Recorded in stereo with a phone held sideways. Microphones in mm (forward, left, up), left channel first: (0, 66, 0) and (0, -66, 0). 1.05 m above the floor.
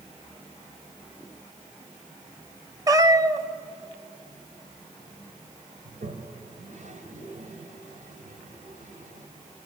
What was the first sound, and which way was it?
A cat meowing, 25° right (ahead or behind).